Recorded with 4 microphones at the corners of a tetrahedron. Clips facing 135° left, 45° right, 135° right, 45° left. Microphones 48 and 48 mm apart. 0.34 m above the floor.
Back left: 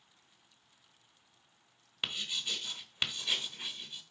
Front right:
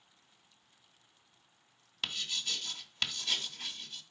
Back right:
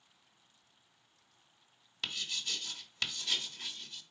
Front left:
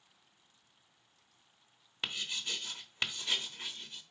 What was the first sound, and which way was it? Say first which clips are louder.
Writing: even, front left 1 dB; 80° left.